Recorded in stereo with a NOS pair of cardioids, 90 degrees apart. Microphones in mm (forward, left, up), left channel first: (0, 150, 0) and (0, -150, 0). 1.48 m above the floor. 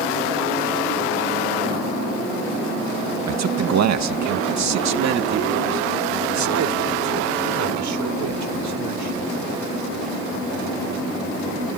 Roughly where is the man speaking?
Ahead right.